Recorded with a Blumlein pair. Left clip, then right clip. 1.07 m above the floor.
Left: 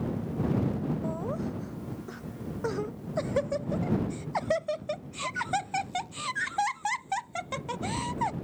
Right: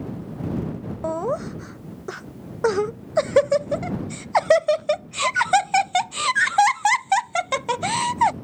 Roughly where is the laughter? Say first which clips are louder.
Right 9 dB; ahead right.